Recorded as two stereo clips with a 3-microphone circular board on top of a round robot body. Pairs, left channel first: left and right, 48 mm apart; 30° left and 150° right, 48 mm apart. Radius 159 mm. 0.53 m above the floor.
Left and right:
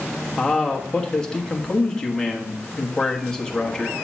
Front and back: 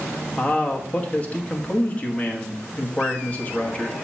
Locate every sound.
0.4 s a man speaking: 35° left, 1.3 m